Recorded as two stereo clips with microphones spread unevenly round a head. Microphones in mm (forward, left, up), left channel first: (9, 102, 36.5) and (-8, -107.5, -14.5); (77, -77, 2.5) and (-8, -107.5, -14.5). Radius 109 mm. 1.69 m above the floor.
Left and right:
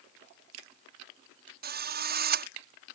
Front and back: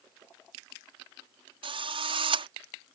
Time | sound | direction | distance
1.6 | a drill | 145° right | ?